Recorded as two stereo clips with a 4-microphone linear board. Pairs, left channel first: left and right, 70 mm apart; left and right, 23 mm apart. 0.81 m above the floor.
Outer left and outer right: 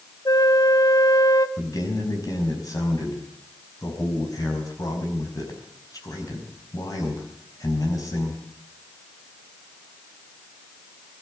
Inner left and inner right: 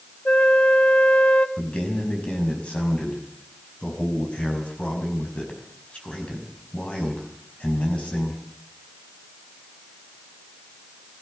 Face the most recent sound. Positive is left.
turn(degrees=60)  # may be behind; listen again after turning